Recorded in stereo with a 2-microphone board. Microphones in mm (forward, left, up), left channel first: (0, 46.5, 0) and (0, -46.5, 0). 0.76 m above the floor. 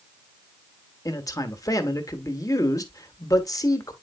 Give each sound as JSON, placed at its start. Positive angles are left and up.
{"t": 1.1, "sound": "a man speaking", "side_deg": 40, "distance_m": 1.5}